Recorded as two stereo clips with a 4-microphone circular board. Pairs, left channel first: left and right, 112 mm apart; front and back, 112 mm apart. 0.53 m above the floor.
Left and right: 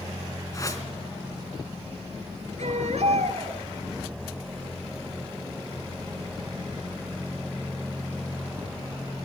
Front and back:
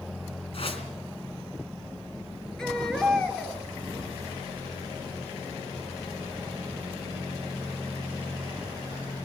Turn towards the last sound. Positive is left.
turn(degrees=-85)